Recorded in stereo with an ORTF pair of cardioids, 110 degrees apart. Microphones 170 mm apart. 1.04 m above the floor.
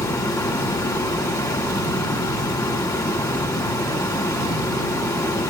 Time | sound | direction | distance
0.0 | running water | 15° left | 8 m